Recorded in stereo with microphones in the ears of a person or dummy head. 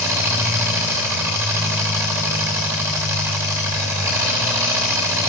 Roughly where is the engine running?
Centre.